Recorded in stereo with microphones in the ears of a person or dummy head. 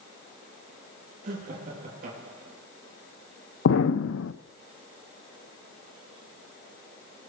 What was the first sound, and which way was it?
Laughter, 45° right (ahead or behind).